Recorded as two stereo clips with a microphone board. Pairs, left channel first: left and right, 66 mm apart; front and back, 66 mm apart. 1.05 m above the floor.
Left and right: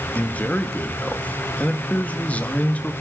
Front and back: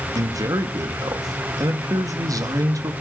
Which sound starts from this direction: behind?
A man speaking, at 0.1 s.